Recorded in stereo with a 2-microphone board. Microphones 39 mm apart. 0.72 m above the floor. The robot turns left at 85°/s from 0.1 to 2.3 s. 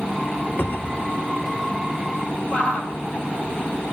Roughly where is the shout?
Left.